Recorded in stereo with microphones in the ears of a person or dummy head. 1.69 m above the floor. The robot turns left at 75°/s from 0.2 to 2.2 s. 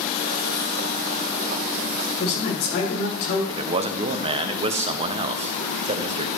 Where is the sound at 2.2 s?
85° left, 4.5 m.